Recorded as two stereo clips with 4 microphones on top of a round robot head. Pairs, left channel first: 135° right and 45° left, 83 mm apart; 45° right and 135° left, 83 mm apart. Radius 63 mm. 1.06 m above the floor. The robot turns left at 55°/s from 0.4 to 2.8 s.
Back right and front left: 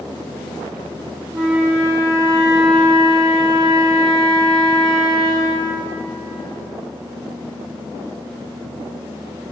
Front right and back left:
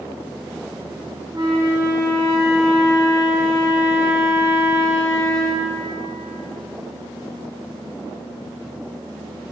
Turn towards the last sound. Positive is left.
turn(degrees=30)